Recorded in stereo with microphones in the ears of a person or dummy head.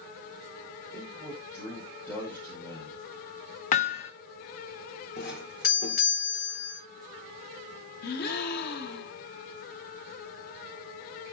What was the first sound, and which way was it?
A man speaking, 10° left (ahead or behind).